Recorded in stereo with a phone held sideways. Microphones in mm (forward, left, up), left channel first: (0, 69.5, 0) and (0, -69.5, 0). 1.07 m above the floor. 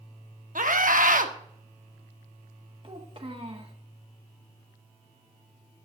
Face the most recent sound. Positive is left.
turn(degrees=-40)  # may be behind; listen again after turning